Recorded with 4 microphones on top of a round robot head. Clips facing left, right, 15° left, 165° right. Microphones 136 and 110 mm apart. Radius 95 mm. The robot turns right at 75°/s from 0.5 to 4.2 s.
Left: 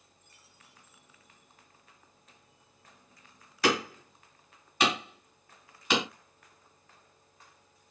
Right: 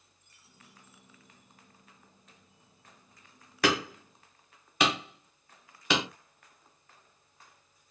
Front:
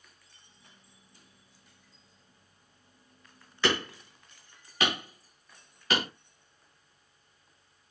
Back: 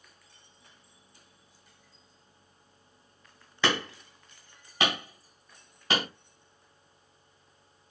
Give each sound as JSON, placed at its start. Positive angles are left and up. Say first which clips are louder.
{"t": 3.6, "sound": "hammering", "louder": "even, even", "azimuth_deg": -135, "distance_m": 2.5}